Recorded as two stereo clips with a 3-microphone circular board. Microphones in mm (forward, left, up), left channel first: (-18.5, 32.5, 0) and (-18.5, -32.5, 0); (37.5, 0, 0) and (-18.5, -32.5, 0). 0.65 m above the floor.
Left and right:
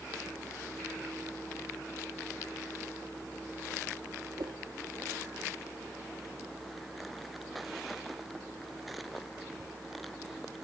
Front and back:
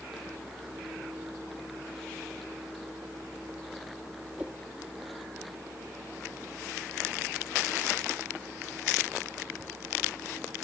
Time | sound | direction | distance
4.4 | a whoosh | 80° right | ?